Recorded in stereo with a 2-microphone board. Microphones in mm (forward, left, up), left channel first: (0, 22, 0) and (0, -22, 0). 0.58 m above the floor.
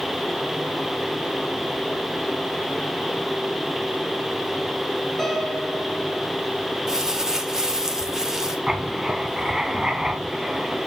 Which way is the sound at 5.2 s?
10° left (ahead or behind).